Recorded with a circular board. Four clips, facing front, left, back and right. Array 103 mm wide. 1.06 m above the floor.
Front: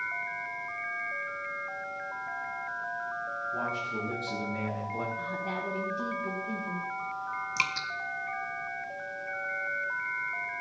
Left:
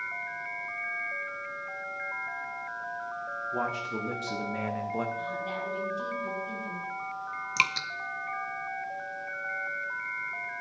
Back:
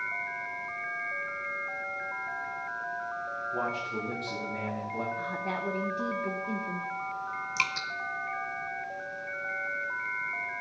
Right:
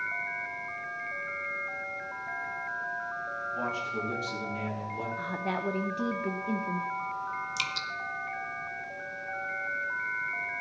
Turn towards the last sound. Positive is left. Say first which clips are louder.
# left 5 dB, even
turn(degrees=90)